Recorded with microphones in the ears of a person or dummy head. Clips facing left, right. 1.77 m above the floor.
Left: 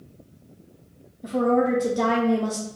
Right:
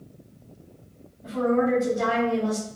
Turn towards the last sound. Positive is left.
turn(degrees=65)  # may be behind; listen again after turning